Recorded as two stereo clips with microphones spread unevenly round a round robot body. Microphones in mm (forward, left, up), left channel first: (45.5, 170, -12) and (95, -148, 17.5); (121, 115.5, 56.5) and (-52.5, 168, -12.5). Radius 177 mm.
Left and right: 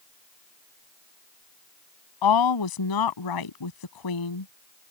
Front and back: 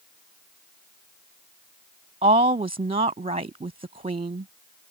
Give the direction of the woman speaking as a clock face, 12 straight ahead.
8 o'clock.